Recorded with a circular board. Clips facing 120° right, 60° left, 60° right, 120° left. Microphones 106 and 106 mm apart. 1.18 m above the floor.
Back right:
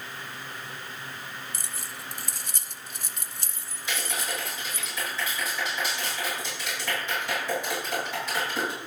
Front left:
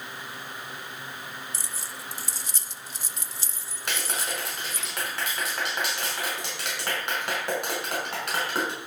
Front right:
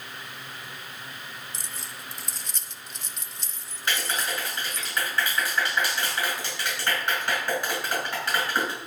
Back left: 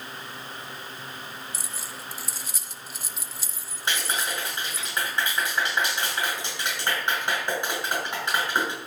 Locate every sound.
1.5 s keys jangling: 155° right, 0.6 m
3.9 s a clap: 55° left, 6.5 m